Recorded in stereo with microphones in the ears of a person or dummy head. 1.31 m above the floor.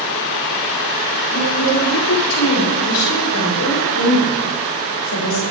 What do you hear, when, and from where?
1.3 s a woman speaking: 85° left, 3 m; by 5.4 s 75° left (ahead or behind), 7 m